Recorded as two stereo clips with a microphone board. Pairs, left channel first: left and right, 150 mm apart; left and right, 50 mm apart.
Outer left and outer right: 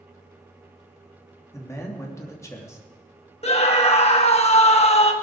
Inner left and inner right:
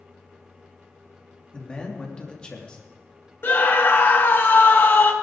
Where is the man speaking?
20° left (ahead or behind), 3 m.